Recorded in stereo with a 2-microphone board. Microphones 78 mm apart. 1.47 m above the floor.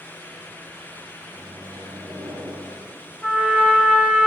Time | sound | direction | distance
1.3 | a microwave | 70° right (ahead or behind) | 2 m
3.2 | a trumpet | 5° right (ahead or behind) | 1.9 m